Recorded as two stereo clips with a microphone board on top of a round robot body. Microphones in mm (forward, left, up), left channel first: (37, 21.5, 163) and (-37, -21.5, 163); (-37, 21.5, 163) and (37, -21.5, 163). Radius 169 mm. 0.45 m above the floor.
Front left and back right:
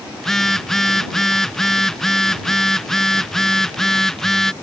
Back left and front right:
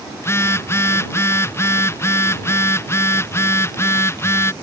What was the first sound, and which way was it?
A phone buzzing, 115° left.